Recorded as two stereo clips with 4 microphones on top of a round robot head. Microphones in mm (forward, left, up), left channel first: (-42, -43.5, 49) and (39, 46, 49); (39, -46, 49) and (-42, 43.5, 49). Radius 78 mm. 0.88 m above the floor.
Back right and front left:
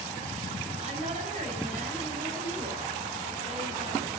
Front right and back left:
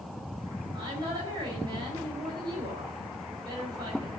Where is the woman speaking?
80° left, 4.5 m.